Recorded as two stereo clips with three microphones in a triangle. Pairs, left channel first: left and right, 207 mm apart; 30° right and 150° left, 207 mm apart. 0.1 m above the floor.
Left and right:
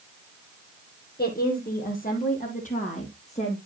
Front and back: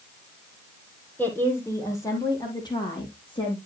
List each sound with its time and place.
1.2 s a woman speaking: 50° left, 4 m; by 3.6 s 35° left, 4.5 m